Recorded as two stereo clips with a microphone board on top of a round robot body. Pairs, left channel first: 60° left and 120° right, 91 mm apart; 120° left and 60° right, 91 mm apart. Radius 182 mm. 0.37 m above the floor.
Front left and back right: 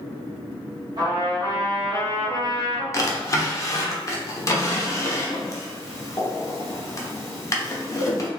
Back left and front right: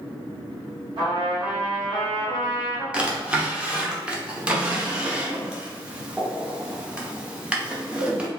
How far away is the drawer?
About 0.9 m.